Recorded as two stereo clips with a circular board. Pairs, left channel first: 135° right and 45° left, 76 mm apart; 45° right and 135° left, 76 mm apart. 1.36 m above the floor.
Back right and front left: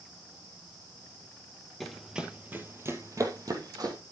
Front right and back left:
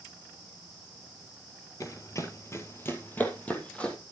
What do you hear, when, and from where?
1.8 s running footsteps: 50° right, 1.8 m; by 4.0 s 30° left, 3 m